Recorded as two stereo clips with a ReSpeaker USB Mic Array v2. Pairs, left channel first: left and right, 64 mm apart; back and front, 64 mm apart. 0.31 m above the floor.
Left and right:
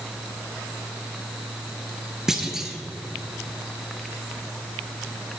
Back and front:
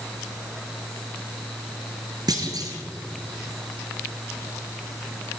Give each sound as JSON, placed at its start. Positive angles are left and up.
{"t": 2.3, "sound": "a clunk", "azimuth_deg": -5, "distance_m": 1.4}